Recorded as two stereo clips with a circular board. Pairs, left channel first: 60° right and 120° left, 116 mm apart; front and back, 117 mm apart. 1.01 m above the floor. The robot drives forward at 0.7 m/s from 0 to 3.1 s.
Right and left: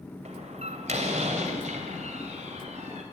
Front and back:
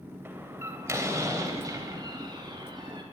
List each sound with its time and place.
0.2 s a door slam: 110° left, 3.5 m; by 3.0 s 135° left, 4.5 m